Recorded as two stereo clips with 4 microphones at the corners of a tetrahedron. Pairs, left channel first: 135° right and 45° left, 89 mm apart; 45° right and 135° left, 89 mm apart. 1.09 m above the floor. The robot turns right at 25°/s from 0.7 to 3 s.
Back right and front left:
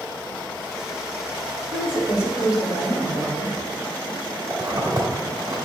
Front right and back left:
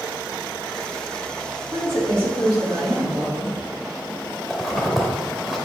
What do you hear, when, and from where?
1.7 s a woman speaking: 105° left, 2 m; by 3.5 s 140° left, 2 m
4.5 s a zipper: 50° left, 1.0 m